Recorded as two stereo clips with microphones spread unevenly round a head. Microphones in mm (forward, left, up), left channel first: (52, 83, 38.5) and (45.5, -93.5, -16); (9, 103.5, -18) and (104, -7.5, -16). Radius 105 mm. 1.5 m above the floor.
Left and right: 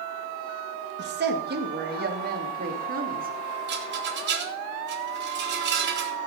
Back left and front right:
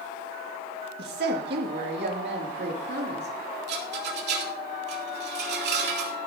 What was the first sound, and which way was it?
A woman speaking, 70° right.